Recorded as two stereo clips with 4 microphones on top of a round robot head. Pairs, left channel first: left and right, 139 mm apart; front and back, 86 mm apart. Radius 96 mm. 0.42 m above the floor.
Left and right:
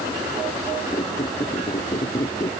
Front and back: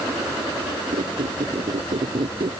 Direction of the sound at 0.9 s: 155° left.